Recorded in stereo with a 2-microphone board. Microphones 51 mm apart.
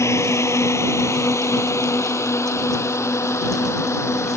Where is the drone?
65° left (ahead or behind).